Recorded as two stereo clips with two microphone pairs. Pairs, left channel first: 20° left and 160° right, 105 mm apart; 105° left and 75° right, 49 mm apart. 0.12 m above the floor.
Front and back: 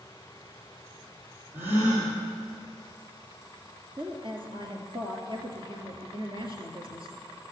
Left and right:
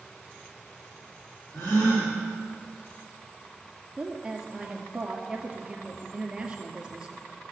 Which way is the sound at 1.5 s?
135° left.